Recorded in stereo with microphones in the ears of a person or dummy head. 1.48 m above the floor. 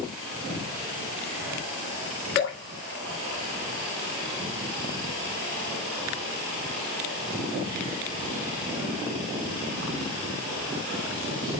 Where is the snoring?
I don't hear snoring.